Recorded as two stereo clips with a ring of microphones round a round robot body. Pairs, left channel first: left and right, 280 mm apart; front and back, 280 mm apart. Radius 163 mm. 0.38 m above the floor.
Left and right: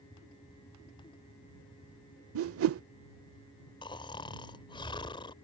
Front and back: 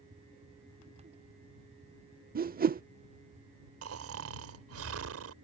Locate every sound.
2.4 s a whoosh: 125° right
3.8 s snoring: 160° left